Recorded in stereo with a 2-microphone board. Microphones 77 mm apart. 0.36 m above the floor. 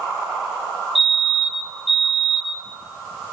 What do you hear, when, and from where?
0.9 s a fire alarm: centre (ahead or behind), 5 m